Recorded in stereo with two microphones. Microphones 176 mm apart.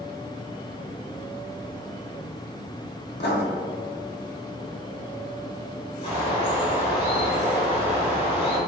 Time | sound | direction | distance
3.2 | writing | 75° left (ahead or behind) | 0.8 m
6.0 | a bird | 35° left (ahead or behind) | 1.7 m